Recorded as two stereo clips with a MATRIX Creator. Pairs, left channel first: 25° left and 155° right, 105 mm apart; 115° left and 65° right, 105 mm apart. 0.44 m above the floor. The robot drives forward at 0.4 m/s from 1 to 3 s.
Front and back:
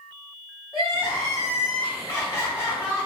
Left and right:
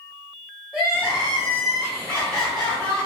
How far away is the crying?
About 1.7 m.